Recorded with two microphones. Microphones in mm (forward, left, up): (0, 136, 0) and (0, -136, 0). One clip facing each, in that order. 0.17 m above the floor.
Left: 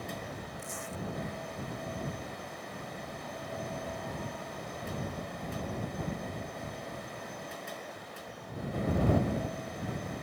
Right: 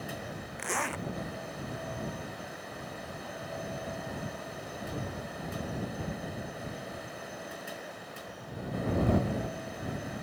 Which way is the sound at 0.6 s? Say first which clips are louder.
Right 5 dB; 85° right.